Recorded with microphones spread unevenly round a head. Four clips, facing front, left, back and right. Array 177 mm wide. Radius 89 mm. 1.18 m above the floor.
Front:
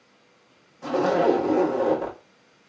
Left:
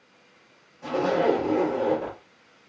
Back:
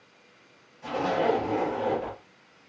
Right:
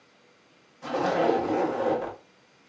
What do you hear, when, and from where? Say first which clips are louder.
0.8 s a zipper: left 2 dB, front 5 dB; 5° left, 1.0 m